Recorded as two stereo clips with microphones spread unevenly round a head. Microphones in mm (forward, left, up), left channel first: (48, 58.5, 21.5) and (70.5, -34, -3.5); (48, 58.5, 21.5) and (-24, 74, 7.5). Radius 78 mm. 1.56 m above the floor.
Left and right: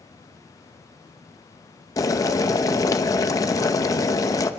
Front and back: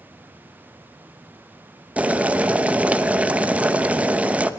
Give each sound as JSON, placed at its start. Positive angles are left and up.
{"t": 2.0, "sound": "boiling", "azimuth_deg": 90, "distance_m": 1.0}